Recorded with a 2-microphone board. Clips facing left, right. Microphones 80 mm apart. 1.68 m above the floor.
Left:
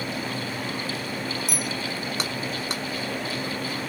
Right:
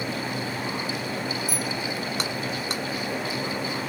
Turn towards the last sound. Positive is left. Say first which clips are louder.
# right 1 dB
turn(degrees=85)